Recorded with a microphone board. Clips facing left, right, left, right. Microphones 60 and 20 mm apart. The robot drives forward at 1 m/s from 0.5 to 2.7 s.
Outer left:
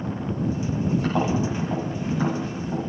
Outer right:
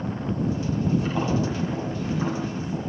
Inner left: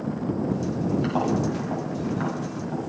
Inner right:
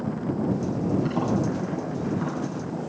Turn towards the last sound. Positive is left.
turn(degrees=70)  # may be behind; listen again after turning